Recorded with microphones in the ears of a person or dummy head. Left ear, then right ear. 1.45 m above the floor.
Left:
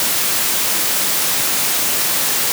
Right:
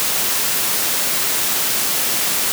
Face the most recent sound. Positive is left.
No sound to turn to.